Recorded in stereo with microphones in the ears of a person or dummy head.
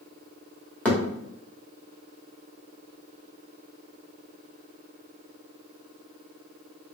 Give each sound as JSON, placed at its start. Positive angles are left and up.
{"t": 0.8, "sound": "a thud", "side_deg": 5, "distance_m": 1.2}